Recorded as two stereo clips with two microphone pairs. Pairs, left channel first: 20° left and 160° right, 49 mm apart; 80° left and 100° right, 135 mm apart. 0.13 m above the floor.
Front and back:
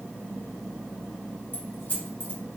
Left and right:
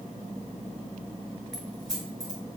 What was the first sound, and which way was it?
Keys jangling, 5° right.